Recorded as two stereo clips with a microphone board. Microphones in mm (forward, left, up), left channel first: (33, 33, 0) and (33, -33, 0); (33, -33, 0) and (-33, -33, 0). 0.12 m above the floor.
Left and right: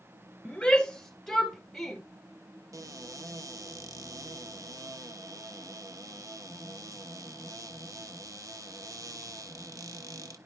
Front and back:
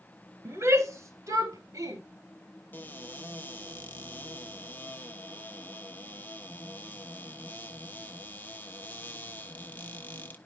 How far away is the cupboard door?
About 1.0 m.